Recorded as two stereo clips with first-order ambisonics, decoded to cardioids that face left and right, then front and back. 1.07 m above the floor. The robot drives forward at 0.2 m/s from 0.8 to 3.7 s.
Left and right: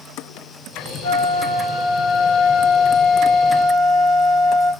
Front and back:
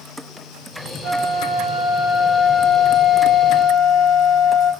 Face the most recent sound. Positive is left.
turn(degrees=70)